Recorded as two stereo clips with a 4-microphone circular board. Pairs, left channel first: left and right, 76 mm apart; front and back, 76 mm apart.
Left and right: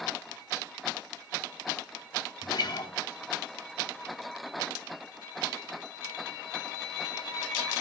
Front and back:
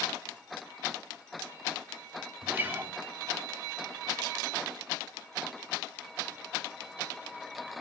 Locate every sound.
2.4 s a guitar: 115° left, 1.0 m